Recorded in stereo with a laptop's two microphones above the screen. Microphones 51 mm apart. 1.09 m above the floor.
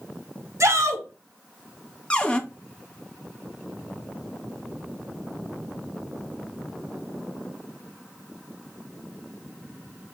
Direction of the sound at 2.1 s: 20° left (ahead or behind).